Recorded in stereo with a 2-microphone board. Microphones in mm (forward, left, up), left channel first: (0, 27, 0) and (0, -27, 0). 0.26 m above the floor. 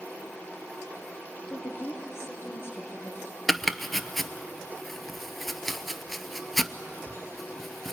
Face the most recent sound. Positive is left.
turn(degrees=5)  # may be behind; listen again after turning